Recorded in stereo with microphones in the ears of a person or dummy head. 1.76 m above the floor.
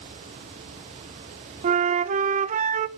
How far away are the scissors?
No scissors in this recording.